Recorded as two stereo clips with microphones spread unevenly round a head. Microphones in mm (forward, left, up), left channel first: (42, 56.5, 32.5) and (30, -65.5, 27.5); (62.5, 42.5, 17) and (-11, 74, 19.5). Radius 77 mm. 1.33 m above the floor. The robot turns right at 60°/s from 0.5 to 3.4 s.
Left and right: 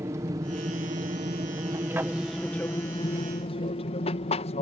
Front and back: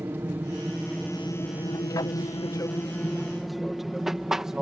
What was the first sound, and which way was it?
An aircraft, 145° right.